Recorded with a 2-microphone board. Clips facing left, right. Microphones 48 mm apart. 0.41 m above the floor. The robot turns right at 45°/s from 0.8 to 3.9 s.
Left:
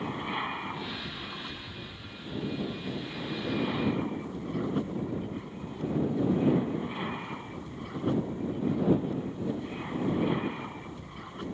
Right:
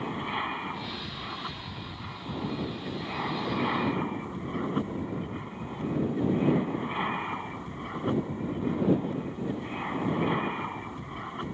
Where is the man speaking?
No man speaking in this recording.